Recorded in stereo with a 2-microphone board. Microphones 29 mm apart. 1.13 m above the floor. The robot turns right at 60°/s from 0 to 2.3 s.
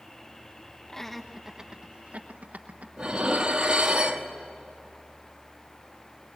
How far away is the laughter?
About 1.2 m.